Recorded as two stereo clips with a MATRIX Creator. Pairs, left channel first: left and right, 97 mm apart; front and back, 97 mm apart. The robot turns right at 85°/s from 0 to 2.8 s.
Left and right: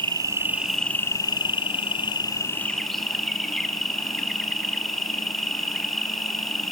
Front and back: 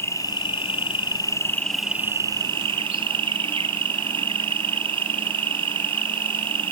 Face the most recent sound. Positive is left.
turn(degrees=175)